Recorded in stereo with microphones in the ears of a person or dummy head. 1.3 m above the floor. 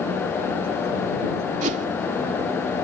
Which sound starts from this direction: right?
A whoosh, at 1.6 s.